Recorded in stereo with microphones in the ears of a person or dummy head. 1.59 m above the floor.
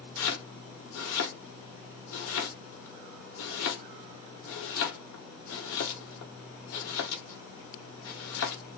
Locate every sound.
0.2 s chopping: 75° left (ahead or behind), 1.6 m